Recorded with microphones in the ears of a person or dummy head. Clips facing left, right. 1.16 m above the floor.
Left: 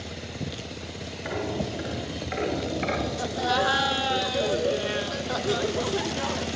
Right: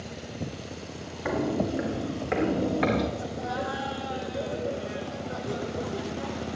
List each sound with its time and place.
1.2 s footsteps: 65° right (ahead or behind), 5 m; by 3.1 s 70° right (ahead or behind), 4 m
3.2 s laughter: 80° left, 0.9 m